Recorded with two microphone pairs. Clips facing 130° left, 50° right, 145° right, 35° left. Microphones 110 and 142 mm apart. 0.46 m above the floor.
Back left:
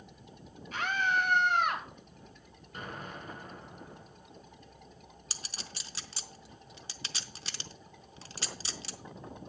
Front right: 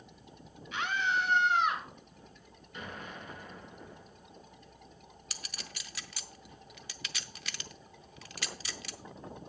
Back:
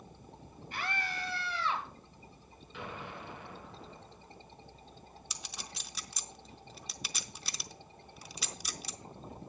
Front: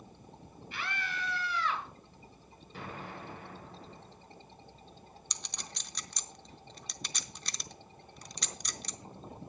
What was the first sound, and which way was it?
A scream, 170° left.